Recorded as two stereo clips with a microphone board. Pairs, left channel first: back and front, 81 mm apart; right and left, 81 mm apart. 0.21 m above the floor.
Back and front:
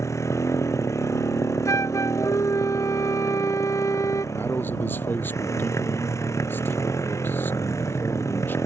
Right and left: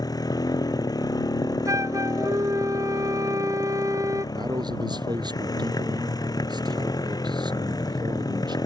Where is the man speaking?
115° left.